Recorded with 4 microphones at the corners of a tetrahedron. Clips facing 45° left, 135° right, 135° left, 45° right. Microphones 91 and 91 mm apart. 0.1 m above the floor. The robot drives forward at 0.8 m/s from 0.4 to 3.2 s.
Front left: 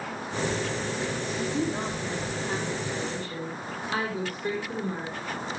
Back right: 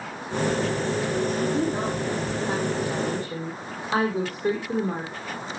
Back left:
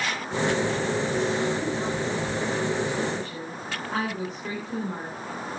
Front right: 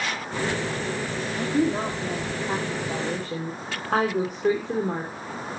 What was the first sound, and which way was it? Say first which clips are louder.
A woman speaking: back right 4 dB, front right 3 dB; 60° right.